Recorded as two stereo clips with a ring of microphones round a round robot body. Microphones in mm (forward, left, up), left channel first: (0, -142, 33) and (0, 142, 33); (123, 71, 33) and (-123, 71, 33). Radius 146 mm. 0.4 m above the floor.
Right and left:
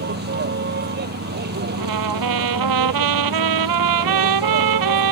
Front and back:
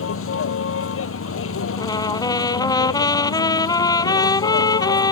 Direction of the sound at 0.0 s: 35° left.